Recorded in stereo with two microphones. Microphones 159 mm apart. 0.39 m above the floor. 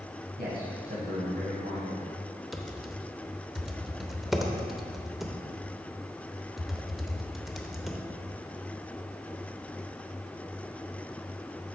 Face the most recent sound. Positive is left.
turn(degrees=0)  # may be behind; listen again after turning